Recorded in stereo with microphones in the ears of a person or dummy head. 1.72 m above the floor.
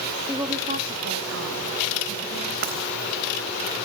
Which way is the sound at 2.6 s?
50° right (ahead or behind).